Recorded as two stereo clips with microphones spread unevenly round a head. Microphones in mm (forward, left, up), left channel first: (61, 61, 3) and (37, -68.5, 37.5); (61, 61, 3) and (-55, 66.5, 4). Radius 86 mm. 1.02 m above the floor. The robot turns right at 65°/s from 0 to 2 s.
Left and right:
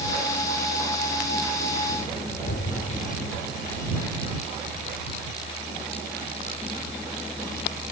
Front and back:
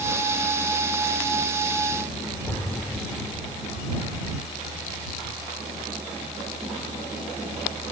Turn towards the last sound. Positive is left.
turn(degrees=75)